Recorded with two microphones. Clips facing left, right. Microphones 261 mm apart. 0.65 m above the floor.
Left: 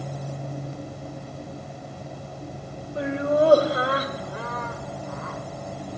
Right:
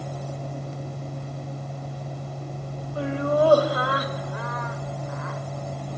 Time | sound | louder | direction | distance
3.0 | laughter | left 1 dB | 20° left (ahead or behind) | 3 m